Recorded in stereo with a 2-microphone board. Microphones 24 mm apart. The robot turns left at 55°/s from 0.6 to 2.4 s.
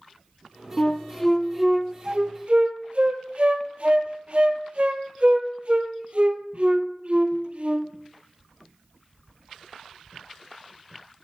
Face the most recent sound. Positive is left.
turn(degrees=-50)  # may be behind; listen again after turning